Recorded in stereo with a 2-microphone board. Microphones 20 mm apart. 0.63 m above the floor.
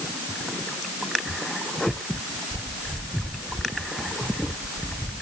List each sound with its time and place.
Only background noise.